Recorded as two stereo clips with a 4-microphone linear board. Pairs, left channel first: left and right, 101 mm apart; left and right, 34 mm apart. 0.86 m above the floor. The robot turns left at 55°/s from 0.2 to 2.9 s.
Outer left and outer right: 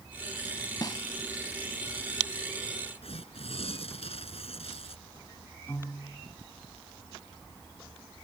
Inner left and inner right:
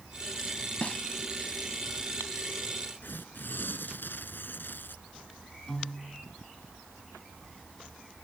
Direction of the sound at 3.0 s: 75° left (ahead or behind).